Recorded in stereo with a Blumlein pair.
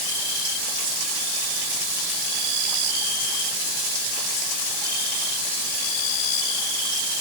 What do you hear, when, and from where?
Only background noise.